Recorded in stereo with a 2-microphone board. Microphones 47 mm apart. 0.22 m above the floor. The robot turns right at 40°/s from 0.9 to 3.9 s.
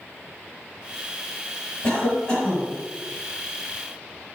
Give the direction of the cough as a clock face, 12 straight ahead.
8 o'clock.